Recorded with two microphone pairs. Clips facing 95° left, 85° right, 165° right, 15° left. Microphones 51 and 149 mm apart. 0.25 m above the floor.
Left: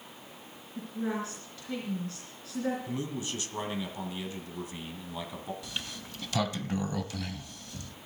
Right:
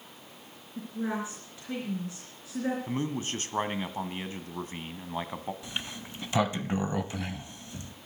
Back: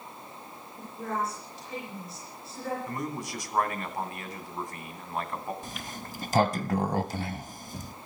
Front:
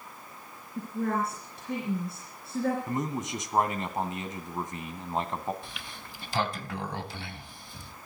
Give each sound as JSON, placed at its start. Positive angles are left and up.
{"t": 0.8, "sound": "a woman speaking", "azimuth_deg": -15, "distance_m": 3.0}
{"t": 2.9, "sound": "a man speaking", "azimuth_deg": -50, "distance_m": 1.6}
{"t": 5.6, "sound": "a sliding door", "azimuth_deg": -140, "distance_m": 0.6}